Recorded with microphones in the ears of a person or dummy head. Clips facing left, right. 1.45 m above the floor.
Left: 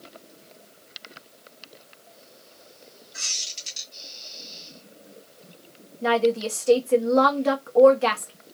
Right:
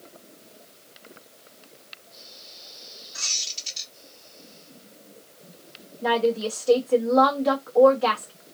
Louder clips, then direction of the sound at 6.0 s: Left 1 dB; 45° left (ahead or behind).